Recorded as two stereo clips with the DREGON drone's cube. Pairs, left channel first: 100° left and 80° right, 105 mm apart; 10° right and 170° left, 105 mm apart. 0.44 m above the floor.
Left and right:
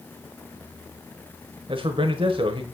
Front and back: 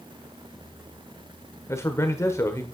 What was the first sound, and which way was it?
A man speaking, 70° right.